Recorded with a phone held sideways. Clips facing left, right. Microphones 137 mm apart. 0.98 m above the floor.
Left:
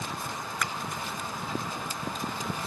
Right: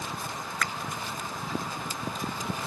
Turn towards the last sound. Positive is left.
turn(degrees=15)  # may be behind; listen again after turning